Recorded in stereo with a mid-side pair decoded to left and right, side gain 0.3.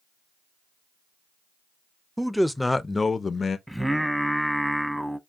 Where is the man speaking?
5° right, 0.8 m; by 3.6 s 65° left, 0.6 m.